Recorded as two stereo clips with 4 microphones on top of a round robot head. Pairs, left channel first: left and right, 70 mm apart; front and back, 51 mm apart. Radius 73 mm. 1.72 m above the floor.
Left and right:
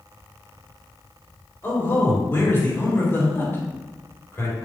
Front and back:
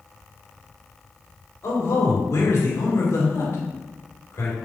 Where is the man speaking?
30° left, 4 m.